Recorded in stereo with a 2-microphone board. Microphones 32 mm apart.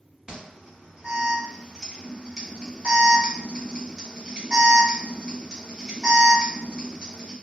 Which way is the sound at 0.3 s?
20° right (ahead or behind).